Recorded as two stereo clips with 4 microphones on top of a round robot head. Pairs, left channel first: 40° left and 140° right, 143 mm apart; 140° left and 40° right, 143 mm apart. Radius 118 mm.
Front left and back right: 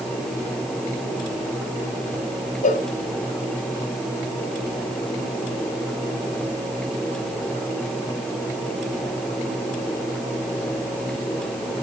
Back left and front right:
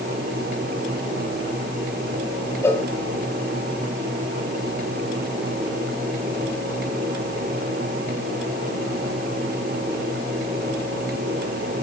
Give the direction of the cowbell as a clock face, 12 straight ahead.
10 o'clock.